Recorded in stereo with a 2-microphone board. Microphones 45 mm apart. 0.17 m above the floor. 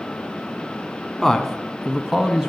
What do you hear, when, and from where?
1.2 s a man speaking: 5° left (ahead or behind), 1.4 m; by 2.5 s 15° right (ahead or behind), 1.2 m